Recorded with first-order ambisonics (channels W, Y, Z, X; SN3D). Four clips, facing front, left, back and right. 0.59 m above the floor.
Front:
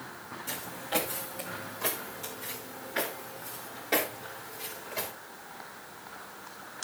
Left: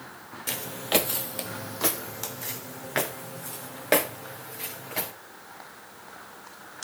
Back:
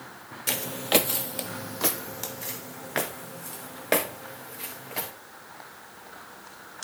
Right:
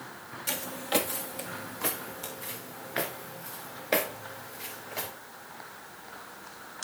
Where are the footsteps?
175° left, 0.7 m; by 5.1 s 125° left, 3.5 m.